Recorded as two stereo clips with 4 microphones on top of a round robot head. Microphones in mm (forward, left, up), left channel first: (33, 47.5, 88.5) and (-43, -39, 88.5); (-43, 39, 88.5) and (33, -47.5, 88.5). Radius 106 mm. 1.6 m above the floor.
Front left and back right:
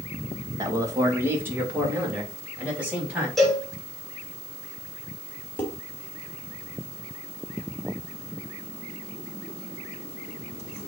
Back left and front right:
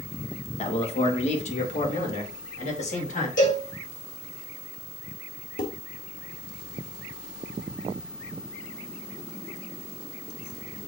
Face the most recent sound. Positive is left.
turn(degrees=125)